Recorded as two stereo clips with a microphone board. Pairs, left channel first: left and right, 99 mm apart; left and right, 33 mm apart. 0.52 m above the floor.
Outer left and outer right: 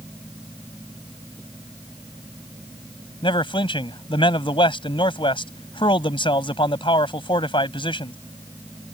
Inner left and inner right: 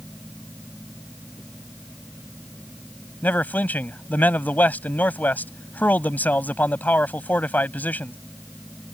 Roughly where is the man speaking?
Left.